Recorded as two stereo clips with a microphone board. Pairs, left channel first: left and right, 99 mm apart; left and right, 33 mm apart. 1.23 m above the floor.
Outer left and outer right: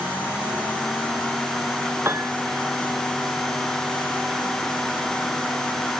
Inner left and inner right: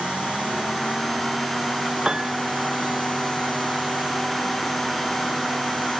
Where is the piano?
25° right (ahead or behind).